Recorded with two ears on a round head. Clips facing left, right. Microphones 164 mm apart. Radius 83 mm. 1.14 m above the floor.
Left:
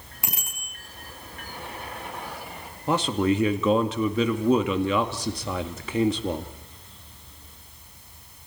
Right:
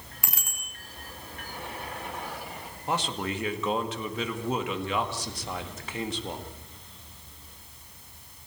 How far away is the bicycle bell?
About 8.5 m.